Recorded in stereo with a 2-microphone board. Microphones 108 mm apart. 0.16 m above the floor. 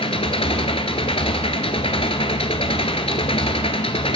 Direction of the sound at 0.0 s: 65° left (ahead or behind).